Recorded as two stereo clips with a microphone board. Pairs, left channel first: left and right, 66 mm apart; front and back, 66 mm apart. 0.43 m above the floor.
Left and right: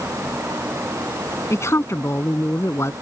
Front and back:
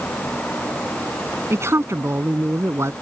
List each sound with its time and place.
1.5 s a man speaking: 135° left